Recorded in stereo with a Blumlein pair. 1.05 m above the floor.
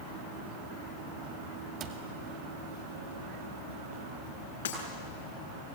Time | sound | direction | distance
1.8 | a cupboard door | 35° right | 2 m
4.7 | breaking glass | 65° left | 6.5 m